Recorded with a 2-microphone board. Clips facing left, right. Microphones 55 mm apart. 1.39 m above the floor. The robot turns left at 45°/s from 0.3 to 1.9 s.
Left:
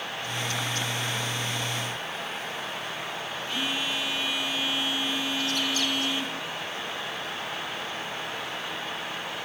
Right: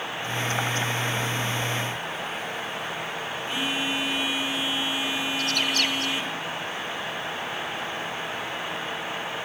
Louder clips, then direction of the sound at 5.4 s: Right 2 dB; 65° right (ahead or behind).